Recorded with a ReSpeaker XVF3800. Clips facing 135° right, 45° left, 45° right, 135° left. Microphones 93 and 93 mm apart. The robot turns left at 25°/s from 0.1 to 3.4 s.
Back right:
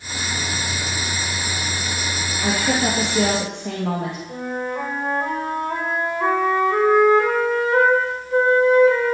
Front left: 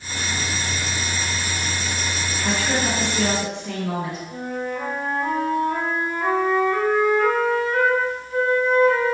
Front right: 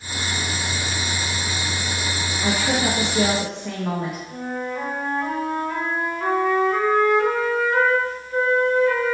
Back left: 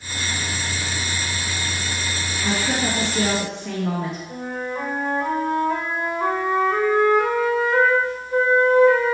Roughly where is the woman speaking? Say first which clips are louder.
Back right 3 dB, front right 1 dB; right.